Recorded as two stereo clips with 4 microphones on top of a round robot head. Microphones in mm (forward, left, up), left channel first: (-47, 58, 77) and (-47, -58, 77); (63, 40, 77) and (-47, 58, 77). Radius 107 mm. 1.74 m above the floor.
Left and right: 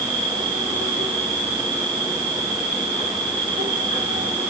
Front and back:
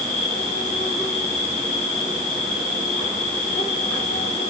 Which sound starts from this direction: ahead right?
An insect, at 0.0 s.